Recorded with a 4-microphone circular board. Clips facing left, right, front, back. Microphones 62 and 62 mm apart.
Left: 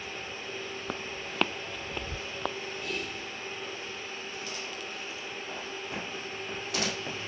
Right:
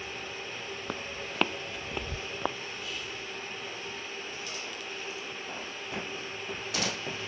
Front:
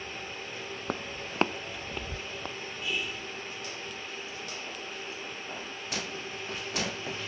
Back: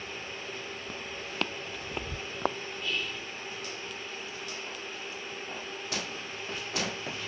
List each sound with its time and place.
0.9 s footsteps: straight ahead; by 2.6 s 170° right
2.8 s whispering: 80° left